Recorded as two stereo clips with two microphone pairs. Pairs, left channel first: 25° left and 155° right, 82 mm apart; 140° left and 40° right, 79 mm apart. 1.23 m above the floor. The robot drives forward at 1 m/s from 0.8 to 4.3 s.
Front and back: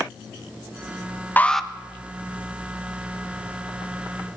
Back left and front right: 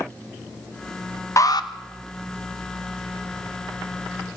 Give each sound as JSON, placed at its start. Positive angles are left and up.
{"t": 1.4, "sound": "an alarm", "azimuth_deg": 90, "distance_m": 0.6}